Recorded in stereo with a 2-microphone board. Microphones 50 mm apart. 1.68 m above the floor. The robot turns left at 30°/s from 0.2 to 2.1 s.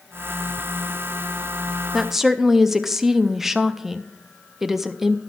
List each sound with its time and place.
1.9 s a woman speaking: 5° right (ahead or behind), 0.5 m; by 5.2 s 10° right (ahead or behind), 0.5 m